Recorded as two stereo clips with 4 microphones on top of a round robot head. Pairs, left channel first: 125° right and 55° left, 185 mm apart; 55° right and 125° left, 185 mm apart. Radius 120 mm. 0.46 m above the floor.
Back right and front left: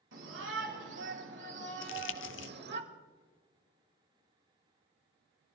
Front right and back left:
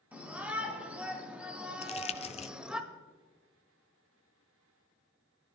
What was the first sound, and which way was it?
A shout, 45° left.